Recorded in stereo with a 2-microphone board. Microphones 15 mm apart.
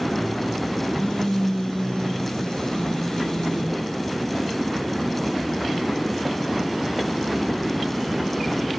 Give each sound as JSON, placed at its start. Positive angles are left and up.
{"t": 0.9, "sound": "a phone buzzing", "side_deg": 70, "distance_m": 4.5}